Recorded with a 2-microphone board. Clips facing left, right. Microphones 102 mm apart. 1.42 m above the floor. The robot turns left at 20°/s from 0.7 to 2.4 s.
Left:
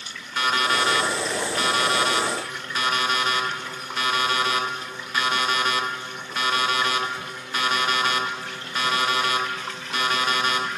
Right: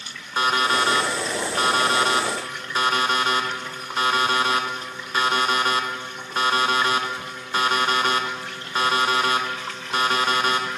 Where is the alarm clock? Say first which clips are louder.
Right 2 dB; 60° right, 0.7 m; by 10.7 s 95° right, 0.7 m.